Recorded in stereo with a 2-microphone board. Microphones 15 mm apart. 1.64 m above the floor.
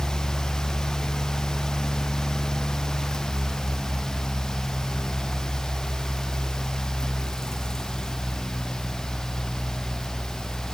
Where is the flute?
I don't hear a flute.